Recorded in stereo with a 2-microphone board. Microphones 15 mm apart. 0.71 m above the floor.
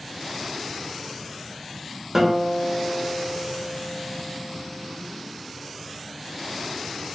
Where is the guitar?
25° right (ahead or behind), 1.1 m.